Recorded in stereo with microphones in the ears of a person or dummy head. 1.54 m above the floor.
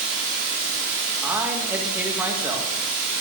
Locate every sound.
0.0 s running water: 75° right (ahead or behind), 2.5 m
1.2 s a man speaking: 10° right (ahead or behind), 1.7 m